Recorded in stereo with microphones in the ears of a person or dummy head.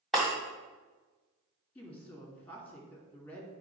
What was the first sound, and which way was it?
Breaking glass, centre (ahead or behind).